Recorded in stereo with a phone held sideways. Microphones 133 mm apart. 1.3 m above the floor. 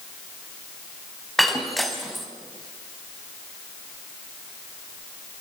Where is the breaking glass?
Centre (ahead or behind), 3.5 m.